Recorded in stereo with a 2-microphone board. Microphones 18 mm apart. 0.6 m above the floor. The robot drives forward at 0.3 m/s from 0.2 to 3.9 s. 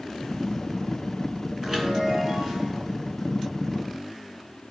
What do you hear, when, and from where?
1.6 s a chime: 20° right (ahead or behind), 4 m